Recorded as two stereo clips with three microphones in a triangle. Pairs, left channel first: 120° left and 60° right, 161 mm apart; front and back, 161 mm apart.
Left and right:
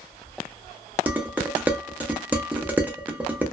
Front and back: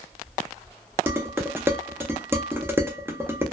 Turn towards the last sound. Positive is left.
turn(degrees=-125)